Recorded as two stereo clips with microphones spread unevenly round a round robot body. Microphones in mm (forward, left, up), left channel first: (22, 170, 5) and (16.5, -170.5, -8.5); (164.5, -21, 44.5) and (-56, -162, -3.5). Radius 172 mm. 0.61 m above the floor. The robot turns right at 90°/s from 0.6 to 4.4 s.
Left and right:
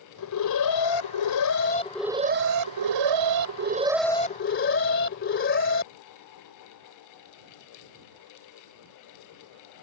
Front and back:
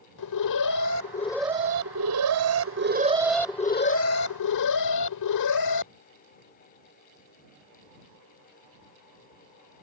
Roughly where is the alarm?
Ahead left.